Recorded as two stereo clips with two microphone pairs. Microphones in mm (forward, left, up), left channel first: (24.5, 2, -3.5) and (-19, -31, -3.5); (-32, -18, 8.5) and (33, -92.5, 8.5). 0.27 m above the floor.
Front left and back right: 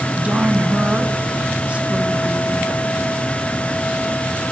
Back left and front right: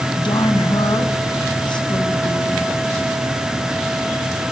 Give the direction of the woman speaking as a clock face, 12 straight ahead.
7 o'clock.